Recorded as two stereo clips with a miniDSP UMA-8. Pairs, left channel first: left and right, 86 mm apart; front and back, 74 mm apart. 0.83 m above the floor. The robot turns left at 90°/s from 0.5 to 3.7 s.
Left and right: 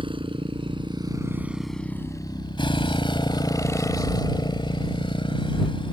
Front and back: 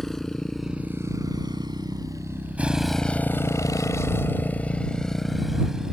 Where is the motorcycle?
85° right; by 5.9 s 100° left.